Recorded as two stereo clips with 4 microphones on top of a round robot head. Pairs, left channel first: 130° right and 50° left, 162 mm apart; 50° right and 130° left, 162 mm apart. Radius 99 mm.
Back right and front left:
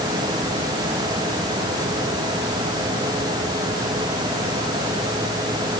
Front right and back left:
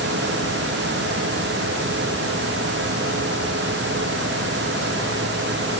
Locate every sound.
Only background noise.